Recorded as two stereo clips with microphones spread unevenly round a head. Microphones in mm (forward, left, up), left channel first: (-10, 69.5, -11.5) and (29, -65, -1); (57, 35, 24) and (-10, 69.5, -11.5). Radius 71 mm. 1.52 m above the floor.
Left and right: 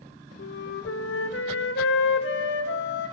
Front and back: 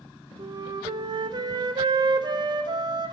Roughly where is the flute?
Behind left.